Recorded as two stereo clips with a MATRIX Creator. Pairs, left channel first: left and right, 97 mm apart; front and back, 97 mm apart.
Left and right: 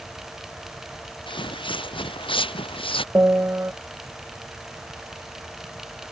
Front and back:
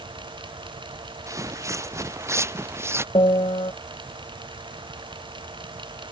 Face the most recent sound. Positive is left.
turn(degrees=-20)